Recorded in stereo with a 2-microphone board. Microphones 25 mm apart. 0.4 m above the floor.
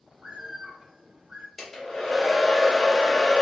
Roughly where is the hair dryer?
Centre.